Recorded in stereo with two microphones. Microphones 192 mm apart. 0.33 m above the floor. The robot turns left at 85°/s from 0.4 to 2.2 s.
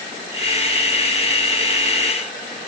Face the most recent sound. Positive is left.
No sound to turn to.